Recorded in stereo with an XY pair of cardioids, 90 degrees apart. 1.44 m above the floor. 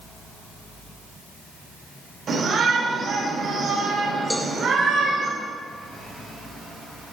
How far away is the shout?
About 4.5 m.